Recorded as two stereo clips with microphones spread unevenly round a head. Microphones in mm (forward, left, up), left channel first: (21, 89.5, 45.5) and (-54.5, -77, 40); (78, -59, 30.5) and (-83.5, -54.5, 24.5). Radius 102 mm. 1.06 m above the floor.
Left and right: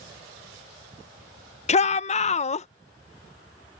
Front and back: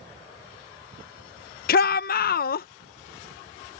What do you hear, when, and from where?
1.7 s a shout: 15° left